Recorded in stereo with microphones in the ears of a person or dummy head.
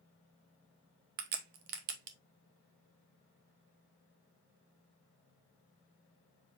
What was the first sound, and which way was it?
A crack, 50° right (ahead or behind).